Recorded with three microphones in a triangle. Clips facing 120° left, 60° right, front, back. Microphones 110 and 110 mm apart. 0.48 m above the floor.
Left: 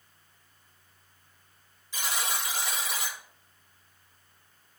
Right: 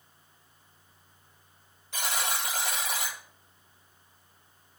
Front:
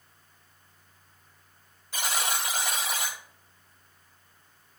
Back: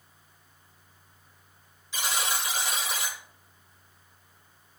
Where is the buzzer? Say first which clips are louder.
Right 1 dB, even; 35° right, 2 m.